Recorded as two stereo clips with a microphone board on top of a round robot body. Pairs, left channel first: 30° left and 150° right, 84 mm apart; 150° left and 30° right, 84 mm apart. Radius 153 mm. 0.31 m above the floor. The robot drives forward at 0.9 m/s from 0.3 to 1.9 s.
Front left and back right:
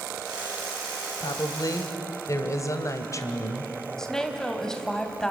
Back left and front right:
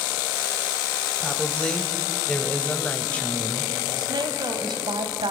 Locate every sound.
1.2 s a woman speaking: 60° left, 2.5 m; by 3.7 s 75° left, 2 m
4.0 s a woman speaking: 50° right, 2.5 m